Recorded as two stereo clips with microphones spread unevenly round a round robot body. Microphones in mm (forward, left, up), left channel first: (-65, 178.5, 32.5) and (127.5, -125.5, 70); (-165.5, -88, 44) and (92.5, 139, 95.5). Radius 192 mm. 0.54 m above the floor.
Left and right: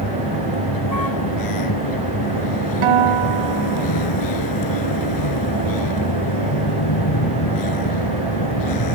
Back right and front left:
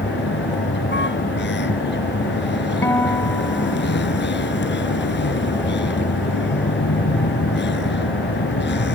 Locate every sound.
0.0 s a vehicle: 160° left
2.8 s a guitar: 50° right